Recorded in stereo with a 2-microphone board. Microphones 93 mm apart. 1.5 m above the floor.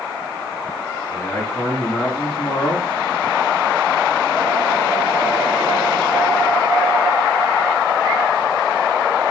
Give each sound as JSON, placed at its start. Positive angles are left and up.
{"t": 1.1, "sound": "a man speaking", "side_deg": 35, "distance_m": 3.5}